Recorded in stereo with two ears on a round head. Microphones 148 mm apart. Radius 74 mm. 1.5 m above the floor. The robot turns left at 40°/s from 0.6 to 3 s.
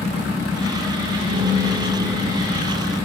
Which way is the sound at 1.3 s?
115° right.